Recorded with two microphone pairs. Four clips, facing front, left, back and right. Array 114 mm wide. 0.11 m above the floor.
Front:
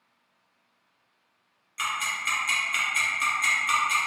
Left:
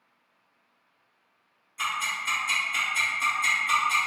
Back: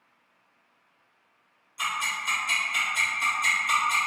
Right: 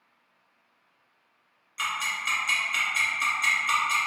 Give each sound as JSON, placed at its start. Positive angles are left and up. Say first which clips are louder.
{"t": 1.8, "sound": "ticking", "louder": "left 1 dB, even", "azimuth_deg": -60, "distance_m": 1.8}